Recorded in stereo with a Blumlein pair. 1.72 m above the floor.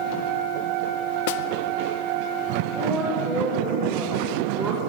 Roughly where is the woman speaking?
Ahead.